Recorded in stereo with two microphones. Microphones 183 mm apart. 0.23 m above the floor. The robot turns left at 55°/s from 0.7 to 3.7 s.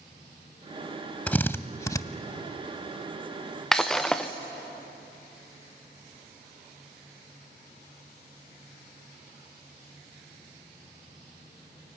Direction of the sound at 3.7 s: 5° left (ahead or behind).